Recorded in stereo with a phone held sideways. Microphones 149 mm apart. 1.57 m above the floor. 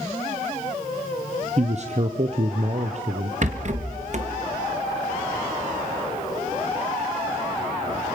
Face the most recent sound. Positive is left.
turn(degrees=-55)  # may be behind; listen again after turning